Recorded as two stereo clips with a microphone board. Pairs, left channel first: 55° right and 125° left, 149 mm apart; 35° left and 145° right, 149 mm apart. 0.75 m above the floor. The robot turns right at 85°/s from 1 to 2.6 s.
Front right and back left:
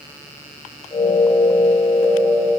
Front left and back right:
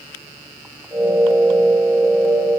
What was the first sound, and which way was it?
Only background noise.